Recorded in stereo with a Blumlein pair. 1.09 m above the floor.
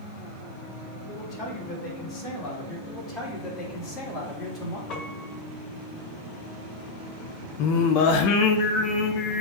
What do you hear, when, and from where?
1.1 s a man speaking: 30° left, 4.5 m
2.9 s a man speaking: 25° left, 4 m
4.9 s a piano: 35° left, 2.0 m
7.6 s singing: 45° left, 0.8 m